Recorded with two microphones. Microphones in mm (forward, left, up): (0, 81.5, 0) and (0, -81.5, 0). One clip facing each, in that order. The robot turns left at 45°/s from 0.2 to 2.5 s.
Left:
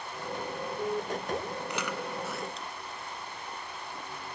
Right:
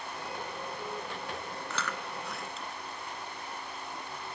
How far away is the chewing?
About 0.7 m.